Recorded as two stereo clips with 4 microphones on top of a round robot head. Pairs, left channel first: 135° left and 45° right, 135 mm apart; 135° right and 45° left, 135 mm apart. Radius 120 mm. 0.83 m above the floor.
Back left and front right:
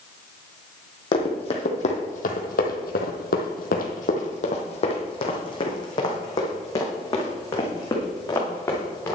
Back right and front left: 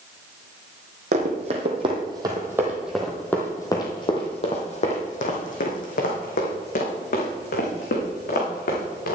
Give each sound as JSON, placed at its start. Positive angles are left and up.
{"t": 1.1, "sound": "running footsteps", "azimuth_deg": 85, "distance_m": 1.8}